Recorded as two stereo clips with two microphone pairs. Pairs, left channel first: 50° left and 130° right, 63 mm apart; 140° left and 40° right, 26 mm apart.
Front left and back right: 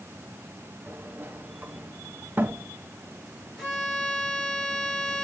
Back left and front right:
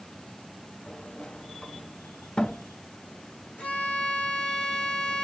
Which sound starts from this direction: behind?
A sliding door, at 0.9 s.